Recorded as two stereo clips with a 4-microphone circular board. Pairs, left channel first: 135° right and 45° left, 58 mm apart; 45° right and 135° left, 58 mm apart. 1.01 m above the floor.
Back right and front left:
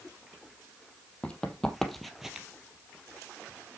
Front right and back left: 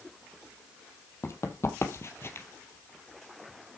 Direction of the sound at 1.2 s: 65° right.